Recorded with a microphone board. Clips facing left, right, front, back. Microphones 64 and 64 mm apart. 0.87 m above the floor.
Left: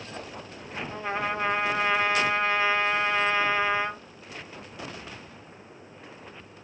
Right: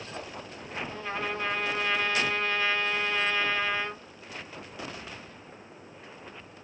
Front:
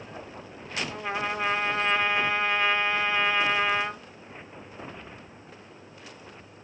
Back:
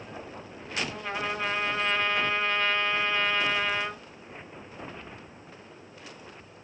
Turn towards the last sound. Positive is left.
turn(degrees=60)